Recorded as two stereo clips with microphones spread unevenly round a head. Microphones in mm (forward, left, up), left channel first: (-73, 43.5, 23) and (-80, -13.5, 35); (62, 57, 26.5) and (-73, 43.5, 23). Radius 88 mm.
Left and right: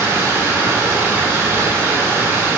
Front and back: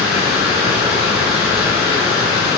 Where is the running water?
120° right, 1.8 m.